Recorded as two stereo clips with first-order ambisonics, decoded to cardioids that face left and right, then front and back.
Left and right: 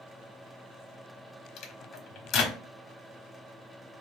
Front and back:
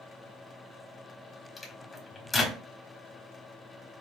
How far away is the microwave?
About 1.1 m.